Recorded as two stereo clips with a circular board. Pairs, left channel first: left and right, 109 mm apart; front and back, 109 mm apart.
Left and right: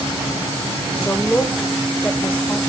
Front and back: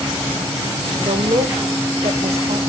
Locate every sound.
1.0 s a woman speaking: 165° left, 1.2 m